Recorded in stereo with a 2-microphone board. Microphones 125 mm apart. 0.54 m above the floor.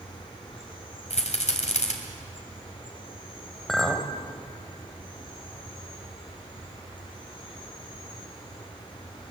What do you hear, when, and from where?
0.0 s an insect: 40° left (ahead or behind), 5.5 m
1.1 s a rattle: 65° left (ahead or behind), 2.5 m
3.7 s a clink: 5° left (ahead or behind), 1.6 m